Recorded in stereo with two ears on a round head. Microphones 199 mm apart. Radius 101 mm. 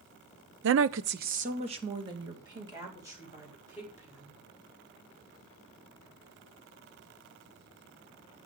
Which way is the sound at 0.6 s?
55° right (ahead or behind).